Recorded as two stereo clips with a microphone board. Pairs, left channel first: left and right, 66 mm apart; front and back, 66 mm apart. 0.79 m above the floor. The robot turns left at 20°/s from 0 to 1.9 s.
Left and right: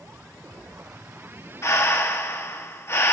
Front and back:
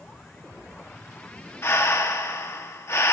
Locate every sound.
1.6 s breathing: 45° left, 0.9 m; by 3.1 s 40° left, 0.9 m